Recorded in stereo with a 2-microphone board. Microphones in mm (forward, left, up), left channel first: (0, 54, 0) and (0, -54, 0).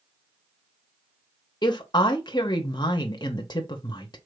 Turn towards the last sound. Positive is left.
turn(degrees=40)  # may be behind; listen again after turning